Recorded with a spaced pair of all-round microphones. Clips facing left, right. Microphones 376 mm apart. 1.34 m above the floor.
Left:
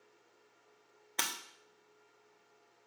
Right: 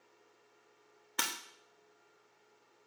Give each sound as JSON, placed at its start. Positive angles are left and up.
{"t": 1.2, "sound": "breaking glass", "side_deg": -20, "distance_m": 0.9}